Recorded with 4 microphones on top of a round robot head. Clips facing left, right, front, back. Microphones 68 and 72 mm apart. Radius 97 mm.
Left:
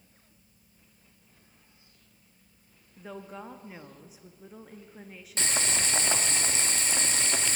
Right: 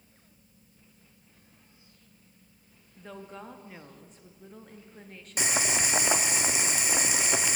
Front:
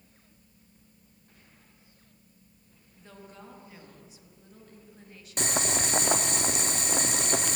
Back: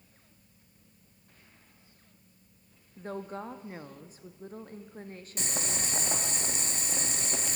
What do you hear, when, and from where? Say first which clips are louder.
3.0 s a woman speaking: left 2 dB, back 11 dB; 170° left, 0.7 m
5.4 s boiling: right 2 dB, front 7 dB; 15° right, 0.8 m